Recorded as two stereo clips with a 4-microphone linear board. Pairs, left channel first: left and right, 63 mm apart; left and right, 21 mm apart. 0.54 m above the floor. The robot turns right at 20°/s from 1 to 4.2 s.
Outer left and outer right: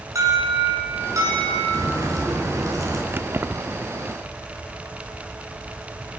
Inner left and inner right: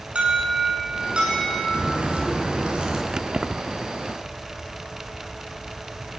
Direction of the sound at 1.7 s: 80° right.